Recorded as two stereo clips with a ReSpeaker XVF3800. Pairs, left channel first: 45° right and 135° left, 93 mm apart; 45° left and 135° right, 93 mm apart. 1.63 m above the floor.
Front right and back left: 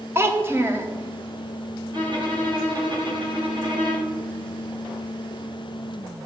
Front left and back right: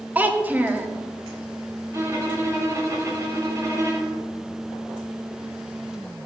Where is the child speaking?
165° left, 0.6 m.